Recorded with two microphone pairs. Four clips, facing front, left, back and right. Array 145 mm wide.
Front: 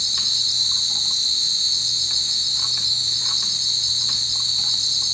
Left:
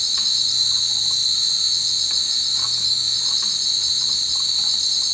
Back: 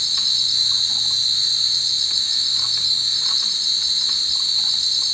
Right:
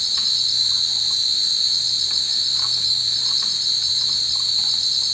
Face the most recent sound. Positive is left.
turn(degrees=135)